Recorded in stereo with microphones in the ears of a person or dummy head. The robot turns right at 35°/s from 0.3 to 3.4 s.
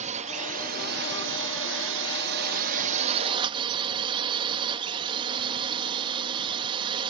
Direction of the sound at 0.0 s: 140° right.